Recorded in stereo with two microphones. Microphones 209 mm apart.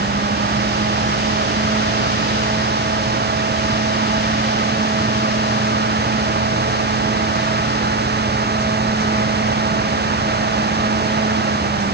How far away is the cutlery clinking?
No cutlery clinking in this recording.